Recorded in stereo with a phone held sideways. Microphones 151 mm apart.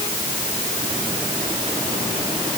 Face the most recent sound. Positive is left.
No sound to turn to.